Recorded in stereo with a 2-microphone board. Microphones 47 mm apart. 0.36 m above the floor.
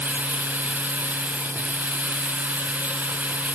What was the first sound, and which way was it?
Running water, 35° right (ahead or behind).